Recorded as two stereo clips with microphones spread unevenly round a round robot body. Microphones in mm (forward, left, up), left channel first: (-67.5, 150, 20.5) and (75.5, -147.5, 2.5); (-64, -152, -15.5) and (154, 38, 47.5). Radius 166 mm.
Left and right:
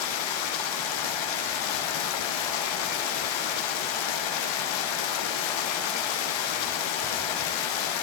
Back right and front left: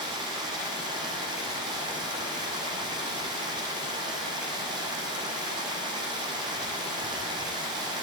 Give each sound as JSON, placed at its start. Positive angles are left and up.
{"t": 0.0, "sound": "running water", "azimuth_deg": 120, "distance_m": 4.5}